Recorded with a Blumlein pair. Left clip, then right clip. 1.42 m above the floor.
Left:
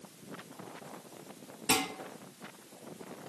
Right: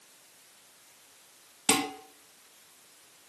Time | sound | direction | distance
1.7 | dishes clattering | 50° right | 1.4 m